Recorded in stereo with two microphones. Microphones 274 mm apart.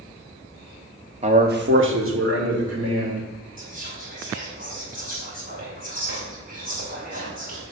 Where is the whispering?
30° right (ahead or behind), 3.5 m.